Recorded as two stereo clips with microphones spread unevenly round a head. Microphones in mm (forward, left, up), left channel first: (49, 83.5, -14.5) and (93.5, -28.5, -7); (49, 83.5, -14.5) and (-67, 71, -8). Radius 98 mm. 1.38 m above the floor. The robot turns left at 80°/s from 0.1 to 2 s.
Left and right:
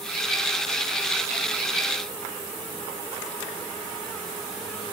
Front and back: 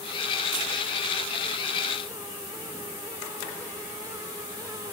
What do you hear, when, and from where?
Only background noise.